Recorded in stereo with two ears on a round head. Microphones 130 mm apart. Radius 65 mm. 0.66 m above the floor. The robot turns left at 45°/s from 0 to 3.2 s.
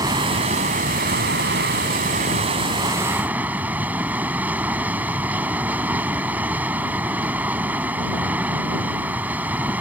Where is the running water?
25° right; by 9.8 s 170° right.